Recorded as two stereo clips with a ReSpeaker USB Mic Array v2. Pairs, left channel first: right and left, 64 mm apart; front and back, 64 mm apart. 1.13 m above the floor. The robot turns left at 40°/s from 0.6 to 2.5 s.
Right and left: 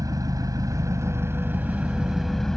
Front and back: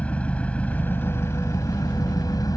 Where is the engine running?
70° left; by 2.6 s 5° right.